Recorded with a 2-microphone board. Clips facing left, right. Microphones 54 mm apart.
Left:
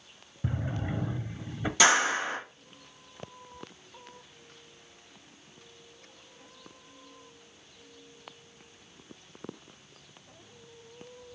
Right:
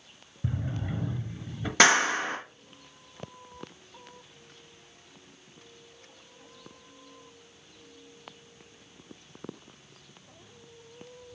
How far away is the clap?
About 3 m.